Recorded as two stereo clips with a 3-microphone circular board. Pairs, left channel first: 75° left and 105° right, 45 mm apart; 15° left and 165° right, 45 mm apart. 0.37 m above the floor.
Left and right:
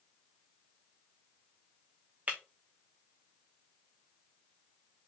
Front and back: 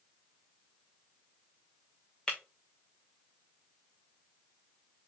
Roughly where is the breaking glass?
Ahead right.